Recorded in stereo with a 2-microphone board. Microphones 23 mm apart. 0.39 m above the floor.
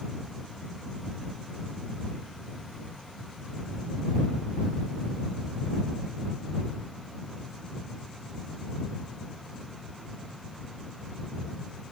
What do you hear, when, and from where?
Only background noise.